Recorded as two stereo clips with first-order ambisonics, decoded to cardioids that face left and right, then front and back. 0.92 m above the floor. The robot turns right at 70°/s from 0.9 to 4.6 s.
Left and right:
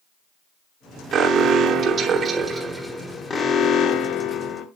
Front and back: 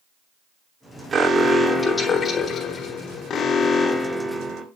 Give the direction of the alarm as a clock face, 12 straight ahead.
4 o'clock.